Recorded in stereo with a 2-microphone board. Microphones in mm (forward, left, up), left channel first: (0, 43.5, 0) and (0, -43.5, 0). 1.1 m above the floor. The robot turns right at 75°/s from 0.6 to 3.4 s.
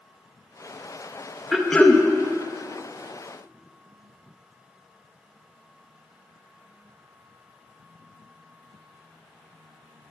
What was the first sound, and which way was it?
Throat clearing, 5° right.